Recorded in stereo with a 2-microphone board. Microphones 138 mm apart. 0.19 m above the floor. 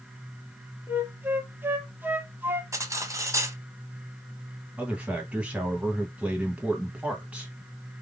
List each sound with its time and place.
0.9 s a flute: 15° right (ahead or behind), 0.7 m
2.7 s cutlery clinking: 25° right (ahead or behind), 0.8 m
4.8 s a man speaking: 10° right (ahead or behind), 1.0 m